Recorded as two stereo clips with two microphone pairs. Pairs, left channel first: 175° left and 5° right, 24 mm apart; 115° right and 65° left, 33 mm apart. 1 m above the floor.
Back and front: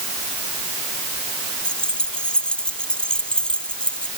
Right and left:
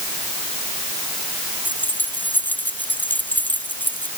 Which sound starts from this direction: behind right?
Keys jangling, at 1.6 s.